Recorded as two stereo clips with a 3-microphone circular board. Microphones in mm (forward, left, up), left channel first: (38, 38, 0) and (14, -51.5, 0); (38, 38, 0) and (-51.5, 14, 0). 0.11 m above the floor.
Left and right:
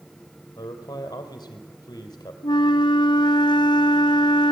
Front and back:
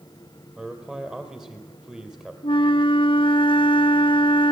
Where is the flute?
35° left, 1.0 m.